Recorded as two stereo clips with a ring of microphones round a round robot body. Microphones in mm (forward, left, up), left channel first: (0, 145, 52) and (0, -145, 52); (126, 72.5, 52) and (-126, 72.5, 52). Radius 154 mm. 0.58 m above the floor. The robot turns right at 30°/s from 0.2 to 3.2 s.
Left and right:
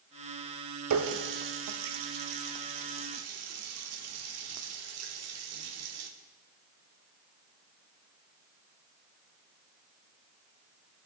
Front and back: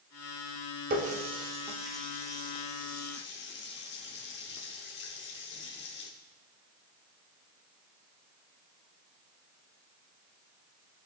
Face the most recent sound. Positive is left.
turn(degrees=-50)